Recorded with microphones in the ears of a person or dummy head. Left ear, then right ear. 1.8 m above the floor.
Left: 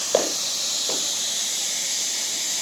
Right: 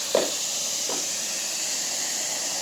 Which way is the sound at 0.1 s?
30° left (ahead or behind).